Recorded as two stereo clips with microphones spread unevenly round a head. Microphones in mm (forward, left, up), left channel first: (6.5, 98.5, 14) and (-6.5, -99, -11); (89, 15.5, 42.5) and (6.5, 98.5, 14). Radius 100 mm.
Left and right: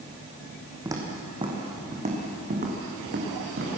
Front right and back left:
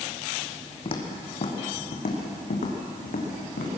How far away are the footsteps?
About 4 m.